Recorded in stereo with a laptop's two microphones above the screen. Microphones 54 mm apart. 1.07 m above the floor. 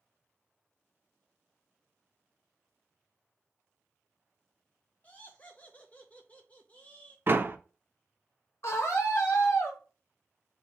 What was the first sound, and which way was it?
Laughter, 25° left (ahead or behind).